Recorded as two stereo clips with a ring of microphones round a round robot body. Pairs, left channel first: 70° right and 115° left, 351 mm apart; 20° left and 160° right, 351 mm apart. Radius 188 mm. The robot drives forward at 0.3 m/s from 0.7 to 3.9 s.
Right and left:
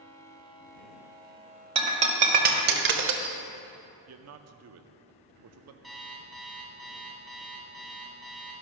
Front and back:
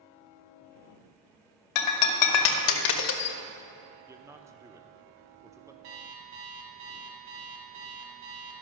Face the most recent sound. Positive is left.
turn(degrees=-155)